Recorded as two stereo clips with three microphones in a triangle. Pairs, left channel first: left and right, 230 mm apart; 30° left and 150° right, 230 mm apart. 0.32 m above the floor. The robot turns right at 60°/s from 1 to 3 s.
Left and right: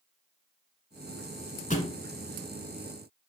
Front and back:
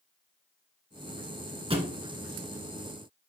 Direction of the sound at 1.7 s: 145° left.